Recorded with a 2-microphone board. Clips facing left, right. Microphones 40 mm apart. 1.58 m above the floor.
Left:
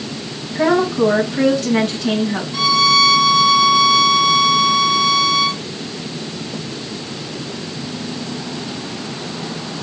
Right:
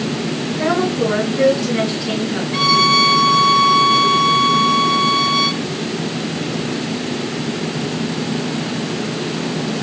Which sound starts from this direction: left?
A woman speaking, at 0.6 s.